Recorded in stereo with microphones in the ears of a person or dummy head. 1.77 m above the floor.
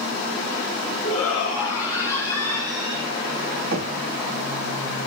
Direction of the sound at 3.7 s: 70° right (ahead or behind).